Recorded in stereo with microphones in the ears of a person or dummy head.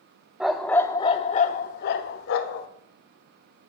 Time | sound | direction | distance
0.4 | a dog barking | 5° right (ahead or behind) | 1.1 m